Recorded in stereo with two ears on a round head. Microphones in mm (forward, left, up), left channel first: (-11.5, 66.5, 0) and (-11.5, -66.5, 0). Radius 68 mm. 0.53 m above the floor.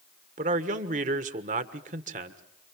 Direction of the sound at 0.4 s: 55° right (ahead or behind).